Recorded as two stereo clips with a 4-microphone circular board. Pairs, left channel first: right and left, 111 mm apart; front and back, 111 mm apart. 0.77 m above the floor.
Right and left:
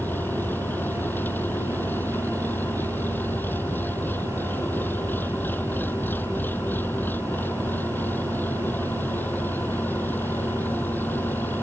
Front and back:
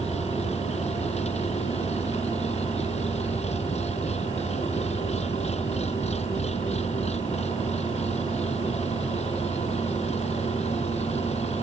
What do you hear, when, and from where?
0.0 s an engine running: 15° right